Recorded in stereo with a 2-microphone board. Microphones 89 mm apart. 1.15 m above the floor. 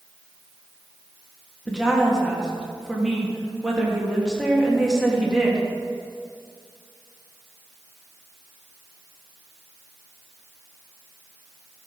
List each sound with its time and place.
1.7 s a woman speaking: 5° right (ahead or behind), 1.6 m